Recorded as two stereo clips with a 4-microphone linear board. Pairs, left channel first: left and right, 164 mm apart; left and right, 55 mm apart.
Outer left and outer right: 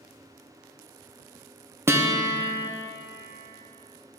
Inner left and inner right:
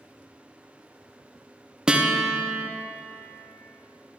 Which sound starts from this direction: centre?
A guitar, at 1.9 s.